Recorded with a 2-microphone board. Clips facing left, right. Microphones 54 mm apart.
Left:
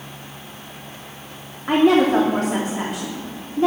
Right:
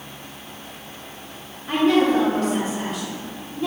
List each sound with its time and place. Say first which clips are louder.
1.7 s a woman speaking: left 3 dB; 65° left (ahead or behind), 2.5 m